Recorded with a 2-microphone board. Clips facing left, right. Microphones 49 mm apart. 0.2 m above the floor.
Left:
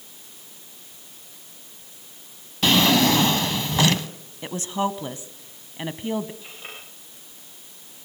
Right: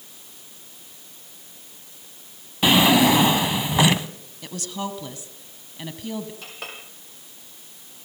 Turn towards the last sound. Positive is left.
turn(degrees=-70)  # may be behind; listen again after turning